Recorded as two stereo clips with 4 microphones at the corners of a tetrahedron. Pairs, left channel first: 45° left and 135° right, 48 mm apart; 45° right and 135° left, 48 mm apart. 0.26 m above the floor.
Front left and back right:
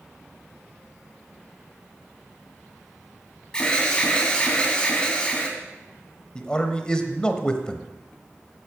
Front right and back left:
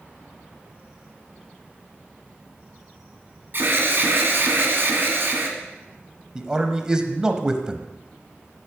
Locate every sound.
3.5 s an alarm: 115° left, 2 m
6.3 s a man speaking: 85° left, 1.1 m